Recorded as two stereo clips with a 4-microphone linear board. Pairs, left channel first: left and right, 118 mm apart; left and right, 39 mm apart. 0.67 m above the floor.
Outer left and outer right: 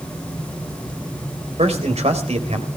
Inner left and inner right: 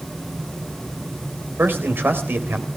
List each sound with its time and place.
1.6 s a man speaking: 65° right (ahead or behind), 3.5 m